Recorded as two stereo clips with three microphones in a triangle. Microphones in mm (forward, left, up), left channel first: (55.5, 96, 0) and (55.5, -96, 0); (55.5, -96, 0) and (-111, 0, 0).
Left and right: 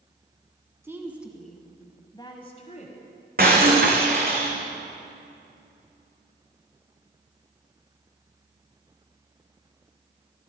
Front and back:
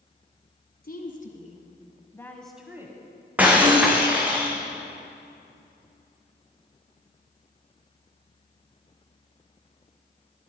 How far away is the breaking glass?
About 2.5 m.